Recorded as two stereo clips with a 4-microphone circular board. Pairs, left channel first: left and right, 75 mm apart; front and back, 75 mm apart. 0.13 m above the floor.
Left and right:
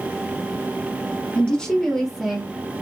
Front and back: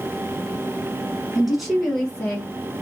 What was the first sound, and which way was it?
A woman speaking, 120° left.